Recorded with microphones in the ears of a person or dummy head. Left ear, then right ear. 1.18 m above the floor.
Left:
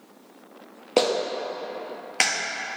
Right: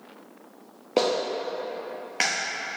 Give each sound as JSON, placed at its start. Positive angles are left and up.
{"t": 1.0, "sound": "a clap", "side_deg": 20, "distance_m": 0.9}